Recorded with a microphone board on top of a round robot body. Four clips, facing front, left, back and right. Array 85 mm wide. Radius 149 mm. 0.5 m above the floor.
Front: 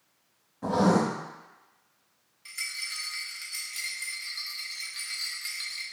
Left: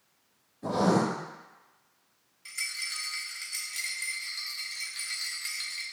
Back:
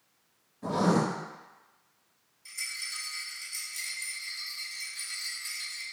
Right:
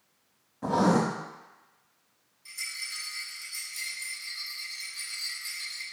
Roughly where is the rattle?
Ahead left.